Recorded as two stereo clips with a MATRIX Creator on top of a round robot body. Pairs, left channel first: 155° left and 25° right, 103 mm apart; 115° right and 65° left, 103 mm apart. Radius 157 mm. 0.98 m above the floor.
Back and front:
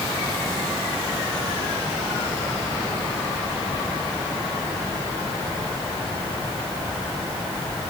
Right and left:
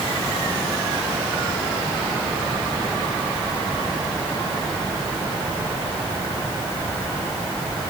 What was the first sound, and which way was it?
Only background noise.